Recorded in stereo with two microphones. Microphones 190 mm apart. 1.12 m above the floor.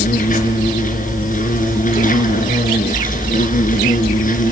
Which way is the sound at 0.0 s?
45° left (ahead or behind).